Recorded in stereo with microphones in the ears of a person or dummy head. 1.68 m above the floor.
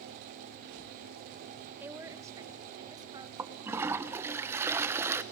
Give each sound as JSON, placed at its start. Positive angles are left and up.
{"t": 1.8, "sound": "a woman speaking", "side_deg": -10, "distance_m": 1.4}
{"t": 3.4, "sound": "a toilet flushing", "side_deg": -15, "distance_m": 0.9}